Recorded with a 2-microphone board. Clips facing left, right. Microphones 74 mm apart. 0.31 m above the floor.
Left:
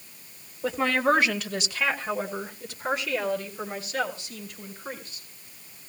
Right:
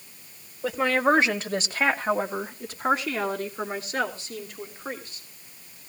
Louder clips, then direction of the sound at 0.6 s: Right 1 dB; 5° right (ahead or behind).